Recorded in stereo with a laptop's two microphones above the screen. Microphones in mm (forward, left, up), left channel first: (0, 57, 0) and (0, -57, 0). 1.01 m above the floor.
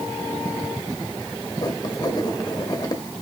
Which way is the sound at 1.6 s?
35° left (ahead or behind).